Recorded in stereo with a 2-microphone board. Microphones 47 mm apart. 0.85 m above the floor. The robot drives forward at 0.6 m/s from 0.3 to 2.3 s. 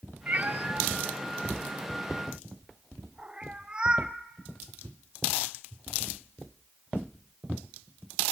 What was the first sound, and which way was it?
A cat meowing, 35° right (ahead or behind).